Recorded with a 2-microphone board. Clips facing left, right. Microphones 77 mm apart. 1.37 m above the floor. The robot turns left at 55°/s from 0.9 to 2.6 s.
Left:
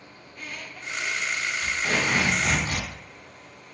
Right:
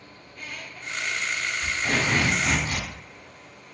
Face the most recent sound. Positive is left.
turn(degrees=145)